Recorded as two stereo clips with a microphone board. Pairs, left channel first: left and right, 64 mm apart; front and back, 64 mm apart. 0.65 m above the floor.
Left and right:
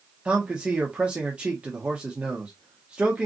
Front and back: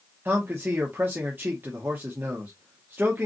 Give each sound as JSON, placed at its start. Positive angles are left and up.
{"t": 0.2, "sound": "a man speaking", "azimuth_deg": -150, "distance_m": 1.2}